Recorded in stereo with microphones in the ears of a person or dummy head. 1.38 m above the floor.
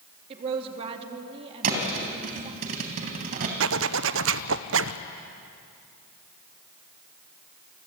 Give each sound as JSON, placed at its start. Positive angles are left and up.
{"t": 0.3, "sound": "a woman speaking", "side_deg": -35, "distance_m": 3.0}
{"t": 1.6, "sound": "a thud", "side_deg": -45, "distance_m": 3.0}
{"t": 3.6, "sound": "a zipper", "side_deg": -65, "distance_m": 0.7}